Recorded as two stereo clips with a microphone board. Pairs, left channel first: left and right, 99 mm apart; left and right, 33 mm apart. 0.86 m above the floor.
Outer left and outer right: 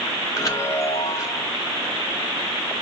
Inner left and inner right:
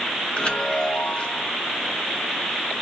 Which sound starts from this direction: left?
A chime, at 0.3 s.